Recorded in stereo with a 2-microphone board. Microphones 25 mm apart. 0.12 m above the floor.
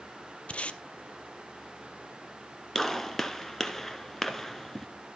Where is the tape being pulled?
55° left (ahead or behind), 0.6 m.